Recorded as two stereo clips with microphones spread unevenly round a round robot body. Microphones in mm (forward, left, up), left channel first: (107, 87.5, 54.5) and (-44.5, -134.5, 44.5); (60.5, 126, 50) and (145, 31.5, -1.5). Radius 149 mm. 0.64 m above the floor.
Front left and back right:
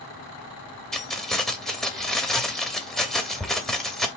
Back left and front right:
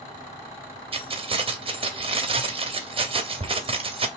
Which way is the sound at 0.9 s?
35° right.